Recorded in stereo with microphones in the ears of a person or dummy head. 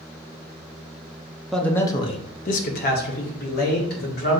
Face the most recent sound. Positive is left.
turn(degrees=50)  # may be behind; listen again after turning